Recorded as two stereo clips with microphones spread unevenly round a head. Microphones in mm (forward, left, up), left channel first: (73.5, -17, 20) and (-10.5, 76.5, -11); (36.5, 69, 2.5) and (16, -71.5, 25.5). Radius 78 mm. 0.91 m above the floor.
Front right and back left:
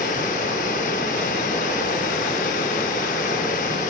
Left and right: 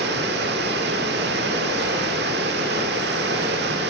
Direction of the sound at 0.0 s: 95° right.